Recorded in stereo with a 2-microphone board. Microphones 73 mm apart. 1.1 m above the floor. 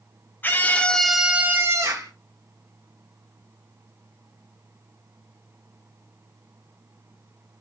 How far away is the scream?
About 0.8 m.